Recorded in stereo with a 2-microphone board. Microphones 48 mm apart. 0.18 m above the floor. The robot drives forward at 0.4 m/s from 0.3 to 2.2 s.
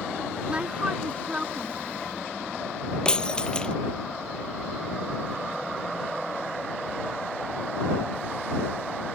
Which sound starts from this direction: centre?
Breaking glass, at 3.0 s.